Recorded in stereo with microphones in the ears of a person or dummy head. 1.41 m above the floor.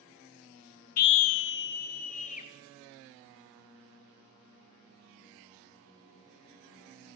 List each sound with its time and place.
1.0 s a scream: 45° left (ahead or behind), 0.6 m; by 2.5 s 40° left (ahead or behind), 2 m